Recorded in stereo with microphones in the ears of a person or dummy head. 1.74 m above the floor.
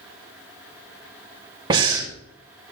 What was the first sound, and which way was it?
Breathing, 25° right (ahead or behind).